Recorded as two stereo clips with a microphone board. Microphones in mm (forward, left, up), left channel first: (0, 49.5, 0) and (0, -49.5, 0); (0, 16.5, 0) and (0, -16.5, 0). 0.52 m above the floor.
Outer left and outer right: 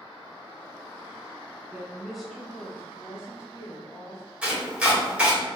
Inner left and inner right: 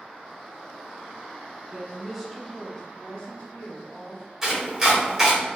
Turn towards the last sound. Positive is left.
turn(degrees=-10)  # may be behind; listen again after turning